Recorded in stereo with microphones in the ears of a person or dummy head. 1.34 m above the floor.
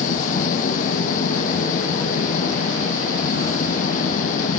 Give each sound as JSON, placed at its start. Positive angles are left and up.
{"t": 0.0, "sound": "an engine running", "side_deg": 40}